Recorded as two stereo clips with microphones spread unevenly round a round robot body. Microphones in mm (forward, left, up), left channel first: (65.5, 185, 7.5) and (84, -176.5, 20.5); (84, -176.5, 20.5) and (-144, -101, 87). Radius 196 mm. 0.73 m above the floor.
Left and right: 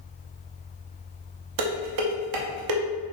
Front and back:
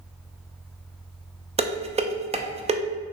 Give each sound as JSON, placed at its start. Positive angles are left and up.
{"t": 1.6, "sound": "dishes clattering", "azimuth_deg": -120, "distance_m": 0.6}